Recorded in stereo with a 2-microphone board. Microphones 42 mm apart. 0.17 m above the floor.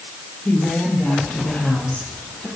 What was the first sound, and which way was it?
A woman speaking, 40° left (ahead or behind).